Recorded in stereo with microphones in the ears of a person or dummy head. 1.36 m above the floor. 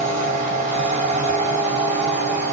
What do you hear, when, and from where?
0.0 s a machine running: 5° left (ahead or behind), 2 m